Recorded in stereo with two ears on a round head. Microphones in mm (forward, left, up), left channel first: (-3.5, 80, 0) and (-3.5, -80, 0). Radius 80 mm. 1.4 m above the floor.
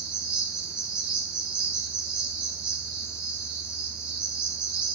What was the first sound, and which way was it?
An insect, 5° right (ahead or behind).